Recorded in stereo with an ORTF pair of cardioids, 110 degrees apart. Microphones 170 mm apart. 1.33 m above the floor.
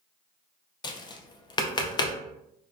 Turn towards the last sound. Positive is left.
turn(degrees=25)